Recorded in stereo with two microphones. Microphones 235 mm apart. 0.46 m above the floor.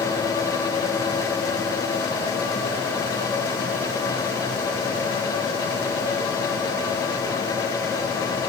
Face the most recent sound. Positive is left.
No sound to turn to.